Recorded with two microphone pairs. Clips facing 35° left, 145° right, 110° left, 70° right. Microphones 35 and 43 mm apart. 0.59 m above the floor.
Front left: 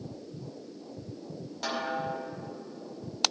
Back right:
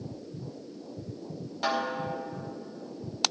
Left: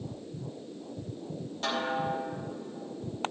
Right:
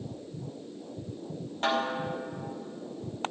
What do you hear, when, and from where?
1.6 s a snare drum: 80° right, 1.3 m